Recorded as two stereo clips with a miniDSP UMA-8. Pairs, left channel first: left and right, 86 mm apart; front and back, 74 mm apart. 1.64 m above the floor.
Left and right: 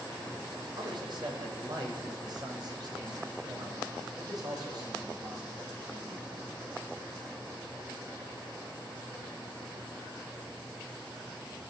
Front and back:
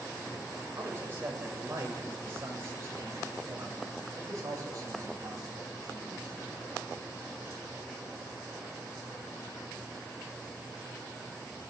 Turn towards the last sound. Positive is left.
turn(degrees=-135)